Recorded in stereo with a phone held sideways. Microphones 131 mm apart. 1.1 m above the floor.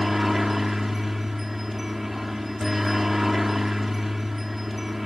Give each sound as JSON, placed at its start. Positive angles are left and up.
{"t": 0.0, "sound": "a helicopter", "side_deg": 0}